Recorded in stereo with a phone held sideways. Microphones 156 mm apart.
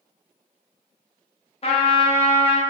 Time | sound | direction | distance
1.6 | a trumpet | 40° left (ahead or behind) | 0.7 m